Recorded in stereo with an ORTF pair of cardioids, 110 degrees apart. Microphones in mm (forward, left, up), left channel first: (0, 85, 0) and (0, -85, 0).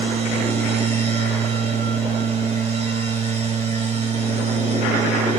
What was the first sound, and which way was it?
A machine running, 40° right.